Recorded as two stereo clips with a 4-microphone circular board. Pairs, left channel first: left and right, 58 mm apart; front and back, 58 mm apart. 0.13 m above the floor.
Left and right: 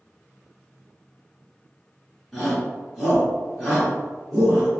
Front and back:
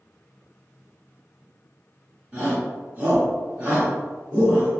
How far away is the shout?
About 1.6 m.